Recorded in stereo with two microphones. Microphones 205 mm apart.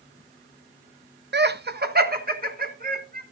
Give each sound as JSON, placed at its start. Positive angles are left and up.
{"t": 1.3, "sound": "laughter", "side_deg": -55, "distance_m": 0.6}